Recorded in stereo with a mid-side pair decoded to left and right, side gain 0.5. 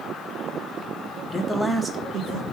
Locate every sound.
1.3 s a man speaking: 25° left, 0.9 m; by 2.4 s 80° right, 1.0 m